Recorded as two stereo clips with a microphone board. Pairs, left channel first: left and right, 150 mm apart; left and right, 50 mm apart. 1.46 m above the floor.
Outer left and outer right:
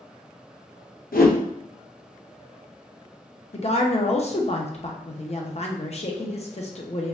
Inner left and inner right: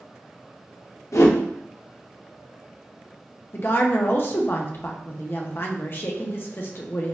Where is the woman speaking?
45° left (ahead or behind), 0.6 m.